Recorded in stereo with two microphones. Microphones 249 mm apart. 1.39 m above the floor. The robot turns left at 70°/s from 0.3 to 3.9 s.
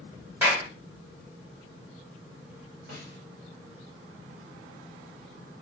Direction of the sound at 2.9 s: 40° right (ahead or behind).